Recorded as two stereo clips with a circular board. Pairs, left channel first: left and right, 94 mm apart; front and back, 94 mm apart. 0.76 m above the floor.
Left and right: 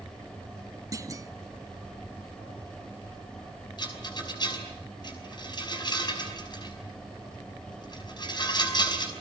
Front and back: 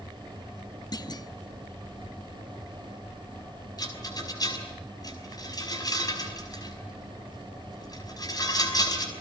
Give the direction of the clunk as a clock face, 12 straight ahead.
1 o'clock.